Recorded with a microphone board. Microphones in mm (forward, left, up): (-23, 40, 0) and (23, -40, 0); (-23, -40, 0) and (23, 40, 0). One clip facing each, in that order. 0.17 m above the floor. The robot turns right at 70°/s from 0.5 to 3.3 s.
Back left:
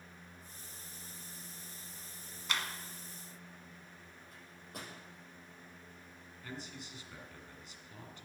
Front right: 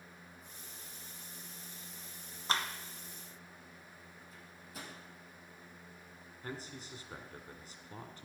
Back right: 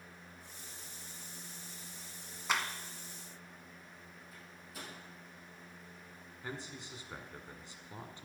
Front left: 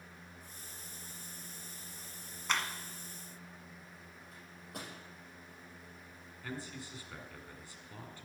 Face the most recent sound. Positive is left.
turn(degrees=-65)